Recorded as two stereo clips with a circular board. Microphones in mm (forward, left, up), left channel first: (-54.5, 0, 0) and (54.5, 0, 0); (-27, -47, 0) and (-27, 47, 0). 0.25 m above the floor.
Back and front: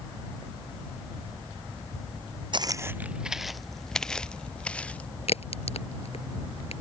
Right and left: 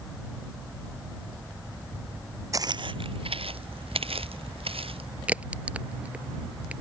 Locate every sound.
2.5 s footsteps: 40° left; by 5.1 s 100° left
5.3 s a crack: 165° left